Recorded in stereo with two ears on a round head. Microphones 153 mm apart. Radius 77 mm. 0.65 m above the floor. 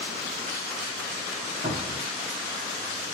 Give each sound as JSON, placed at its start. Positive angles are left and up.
{"t": 1.6, "sound": "a cupboard door", "side_deg": -45, "distance_m": 1.0}